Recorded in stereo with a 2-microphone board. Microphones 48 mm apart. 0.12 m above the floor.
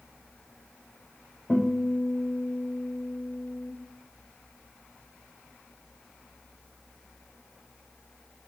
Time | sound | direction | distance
1.5 | a guitar | 35° left (ahead or behind) | 1.5 m